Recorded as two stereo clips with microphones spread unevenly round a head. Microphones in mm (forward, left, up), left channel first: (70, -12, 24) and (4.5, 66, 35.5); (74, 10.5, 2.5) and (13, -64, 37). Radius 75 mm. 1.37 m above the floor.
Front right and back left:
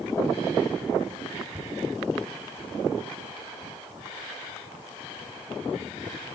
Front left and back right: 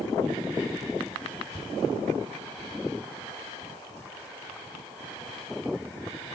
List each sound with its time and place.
1.5 s a thud: 105° left, 1.3 m